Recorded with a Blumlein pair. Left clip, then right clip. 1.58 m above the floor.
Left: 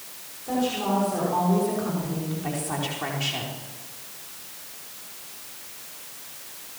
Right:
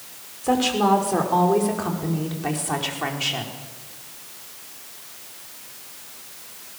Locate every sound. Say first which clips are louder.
0.4 s a woman speaking: right 7 dB; 55° right, 5.5 m; by 3.5 s 80° right, 4.5 m